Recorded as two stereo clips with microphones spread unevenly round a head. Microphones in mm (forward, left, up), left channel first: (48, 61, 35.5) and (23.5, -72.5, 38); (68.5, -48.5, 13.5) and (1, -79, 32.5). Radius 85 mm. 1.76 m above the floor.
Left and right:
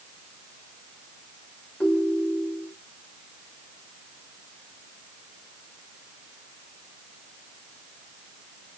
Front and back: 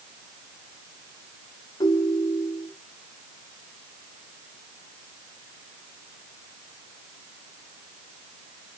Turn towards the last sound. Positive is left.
turn(degrees=0)